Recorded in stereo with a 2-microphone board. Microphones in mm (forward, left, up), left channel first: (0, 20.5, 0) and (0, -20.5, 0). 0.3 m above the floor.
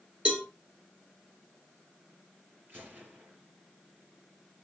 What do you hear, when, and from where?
0.2 s a cowbell: 30° right (ahead or behind), 3.5 m
2.7 s a gunshot: 55° right (ahead or behind), 5 m